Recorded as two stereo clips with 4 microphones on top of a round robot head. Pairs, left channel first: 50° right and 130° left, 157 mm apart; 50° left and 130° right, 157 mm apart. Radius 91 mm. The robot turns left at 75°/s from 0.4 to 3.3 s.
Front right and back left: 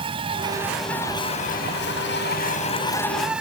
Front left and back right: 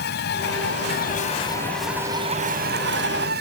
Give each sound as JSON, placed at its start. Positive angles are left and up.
{"t": 0.0, "sound": "an insect", "azimuth_deg": 70}